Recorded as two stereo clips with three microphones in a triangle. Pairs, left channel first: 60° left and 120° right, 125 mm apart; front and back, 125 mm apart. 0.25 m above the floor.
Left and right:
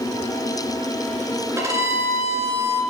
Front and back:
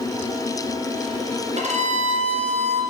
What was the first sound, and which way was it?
A violin, 175° left.